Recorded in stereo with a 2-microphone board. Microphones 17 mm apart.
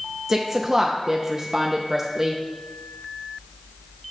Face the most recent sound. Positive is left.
turn(degrees=-20)  # may be behind; listen again after turning